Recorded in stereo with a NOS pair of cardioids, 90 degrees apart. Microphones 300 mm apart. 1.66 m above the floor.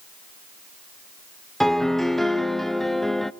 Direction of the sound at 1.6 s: Straight ahead.